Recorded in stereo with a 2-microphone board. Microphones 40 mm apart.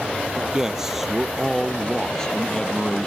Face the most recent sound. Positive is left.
turn(degrees=30)  # may be behind; listen again after turning